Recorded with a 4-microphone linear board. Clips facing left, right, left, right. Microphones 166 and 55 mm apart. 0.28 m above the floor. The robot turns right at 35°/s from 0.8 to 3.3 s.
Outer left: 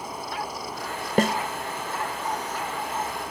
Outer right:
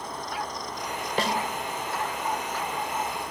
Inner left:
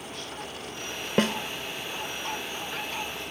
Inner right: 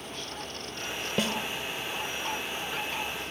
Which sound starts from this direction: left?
A snare drum, at 1.2 s.